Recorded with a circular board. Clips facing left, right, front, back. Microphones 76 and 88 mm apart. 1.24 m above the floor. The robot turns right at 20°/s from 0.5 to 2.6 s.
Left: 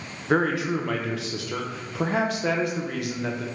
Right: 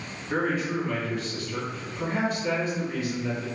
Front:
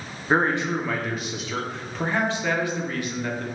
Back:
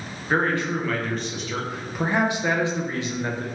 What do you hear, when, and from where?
0.3 s a man speaking: 70° left, 0.5 m; by 3.5 s 110° left, 0.5 m